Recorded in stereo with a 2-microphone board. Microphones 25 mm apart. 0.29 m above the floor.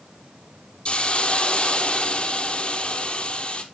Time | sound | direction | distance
0.8 | a hiss | 40° left (ahead or behind) | 1.5 m